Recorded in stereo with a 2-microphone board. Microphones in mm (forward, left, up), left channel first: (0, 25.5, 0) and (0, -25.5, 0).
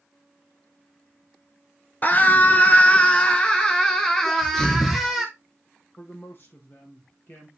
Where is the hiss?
No hiss in this recording.